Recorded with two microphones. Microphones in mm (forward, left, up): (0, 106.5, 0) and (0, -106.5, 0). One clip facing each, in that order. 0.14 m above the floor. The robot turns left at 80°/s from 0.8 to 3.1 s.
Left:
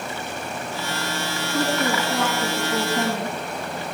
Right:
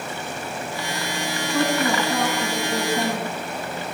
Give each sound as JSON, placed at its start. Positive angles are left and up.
{"t": 1.5, "sound": "a woman speaking", "azimuth_deg": -60, "distance_m": 6.5}